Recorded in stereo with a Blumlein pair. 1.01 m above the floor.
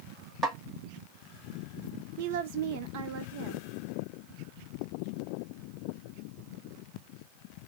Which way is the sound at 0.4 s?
20° right.